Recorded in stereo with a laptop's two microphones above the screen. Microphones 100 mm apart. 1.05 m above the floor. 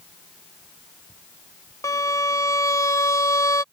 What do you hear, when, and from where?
1.8 s a violin: 30° left (ahead or behind)